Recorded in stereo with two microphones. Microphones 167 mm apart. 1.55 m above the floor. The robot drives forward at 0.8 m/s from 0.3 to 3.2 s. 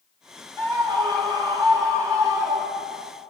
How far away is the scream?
About 1.9 m.